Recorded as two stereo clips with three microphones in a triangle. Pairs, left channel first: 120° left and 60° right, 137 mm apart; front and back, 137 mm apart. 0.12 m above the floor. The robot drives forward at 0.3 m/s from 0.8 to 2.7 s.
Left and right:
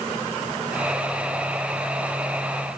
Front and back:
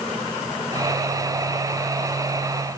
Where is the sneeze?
No sneeze in this recording.